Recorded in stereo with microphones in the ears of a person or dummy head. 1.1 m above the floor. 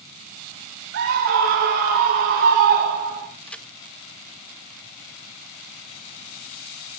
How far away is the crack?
About 0.8 m.